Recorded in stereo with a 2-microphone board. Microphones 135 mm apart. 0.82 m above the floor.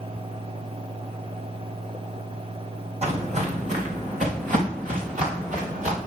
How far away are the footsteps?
About 2 m.